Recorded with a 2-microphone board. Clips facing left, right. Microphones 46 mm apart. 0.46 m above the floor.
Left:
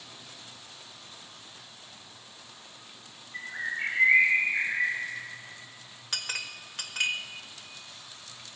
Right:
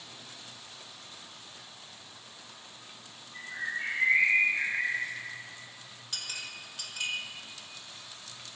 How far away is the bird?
About 1.5 m.